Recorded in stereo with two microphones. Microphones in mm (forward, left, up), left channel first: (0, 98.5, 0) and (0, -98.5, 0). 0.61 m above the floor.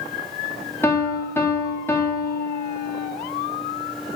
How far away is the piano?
About 0.7 m.